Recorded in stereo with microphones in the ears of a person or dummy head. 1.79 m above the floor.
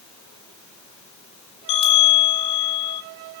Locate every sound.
1.7 s a bell: 30° left (ahead or behind), 1.3 m